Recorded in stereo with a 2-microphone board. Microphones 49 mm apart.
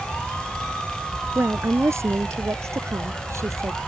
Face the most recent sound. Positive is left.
turn(degrees=-75)  # may be behind; listen again after turning